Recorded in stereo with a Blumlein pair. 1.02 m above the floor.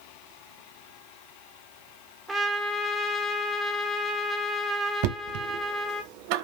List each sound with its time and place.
2.3 s a trumpet: 10° right, 0.8 m
5.0 s knocking: 45° right, 0.6 m